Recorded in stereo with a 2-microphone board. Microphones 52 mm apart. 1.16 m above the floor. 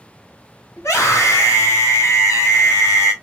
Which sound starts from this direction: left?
A scream, at 0.8 s.